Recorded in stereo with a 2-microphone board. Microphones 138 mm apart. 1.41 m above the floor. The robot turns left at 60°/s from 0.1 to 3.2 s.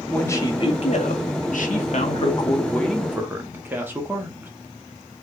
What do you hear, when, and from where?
0.1 s a man speaking: 170° left, 0.7 m; by 4.5 s 15° right, 0.7 m